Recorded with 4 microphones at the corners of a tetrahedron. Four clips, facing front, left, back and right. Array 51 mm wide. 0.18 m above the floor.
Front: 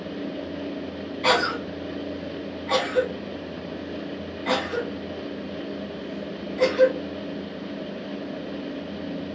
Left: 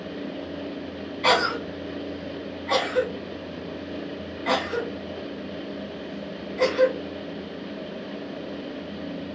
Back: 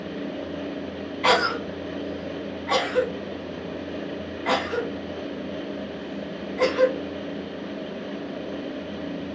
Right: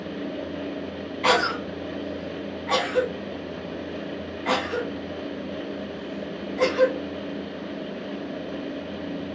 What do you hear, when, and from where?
1.2 s a cough: 145° right, 1.2 m